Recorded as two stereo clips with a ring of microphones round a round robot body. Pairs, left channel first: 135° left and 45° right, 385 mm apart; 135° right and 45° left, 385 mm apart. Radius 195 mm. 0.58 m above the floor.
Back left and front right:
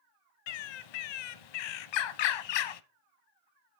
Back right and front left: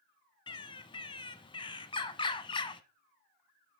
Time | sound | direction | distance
0.5 | a bird | 150° left | 0.7 m